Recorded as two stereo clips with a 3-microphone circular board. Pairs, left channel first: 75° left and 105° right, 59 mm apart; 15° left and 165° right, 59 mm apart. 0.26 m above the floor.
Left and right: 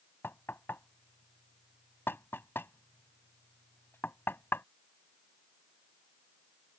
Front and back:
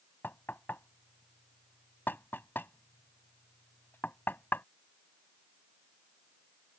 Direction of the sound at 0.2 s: 50° left.